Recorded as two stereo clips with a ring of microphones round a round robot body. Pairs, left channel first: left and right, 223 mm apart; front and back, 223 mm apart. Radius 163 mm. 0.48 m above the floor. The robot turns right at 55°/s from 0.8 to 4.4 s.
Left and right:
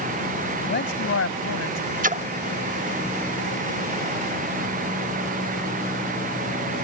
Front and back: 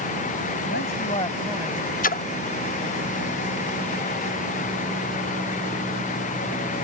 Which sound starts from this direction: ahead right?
A splash, at 2.0 s.